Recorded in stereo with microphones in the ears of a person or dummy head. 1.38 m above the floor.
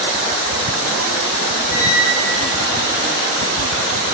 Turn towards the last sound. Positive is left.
turn(degrees=15)  # may be behind; listen again after turning